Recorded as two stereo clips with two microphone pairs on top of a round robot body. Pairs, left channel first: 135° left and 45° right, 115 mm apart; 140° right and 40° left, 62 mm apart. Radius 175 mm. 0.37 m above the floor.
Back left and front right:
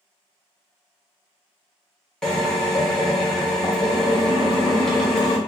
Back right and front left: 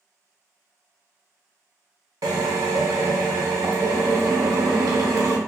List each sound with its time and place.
2.2 s a drill: 50° left, 0.7 m